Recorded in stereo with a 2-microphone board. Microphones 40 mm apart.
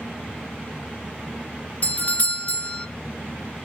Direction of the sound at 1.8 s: 35° left (ahead or behind).